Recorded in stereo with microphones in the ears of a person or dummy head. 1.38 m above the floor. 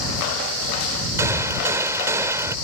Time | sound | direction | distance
1.2 | a gunshot | 15° right (ahead or behind) | ?